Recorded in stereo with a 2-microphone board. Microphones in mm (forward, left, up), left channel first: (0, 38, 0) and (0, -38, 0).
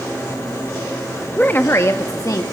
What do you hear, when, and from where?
1.4 s a woman speaking: 20° left (ahead or behind), 0.8 m; by 2.4 s 55° left (ahead or behind), 1.1 m